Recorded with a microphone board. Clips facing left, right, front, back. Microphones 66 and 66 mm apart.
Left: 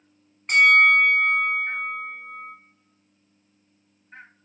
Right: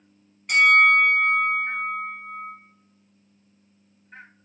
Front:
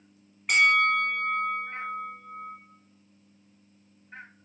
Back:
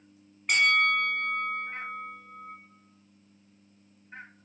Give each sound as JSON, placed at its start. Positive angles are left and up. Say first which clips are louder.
{"t": 0.5, "sound": "a bell", "louder": "even, front 2 dB", "azimuth_deg": 85, "distance_m": 1.1}